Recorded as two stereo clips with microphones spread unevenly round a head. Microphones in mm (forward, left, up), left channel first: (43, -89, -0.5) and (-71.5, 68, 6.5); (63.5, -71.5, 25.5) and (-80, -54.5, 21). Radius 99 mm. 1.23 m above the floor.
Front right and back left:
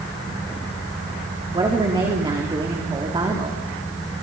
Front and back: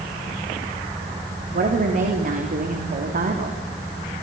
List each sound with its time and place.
1.5 s a woman speaking: 165° right, 3 m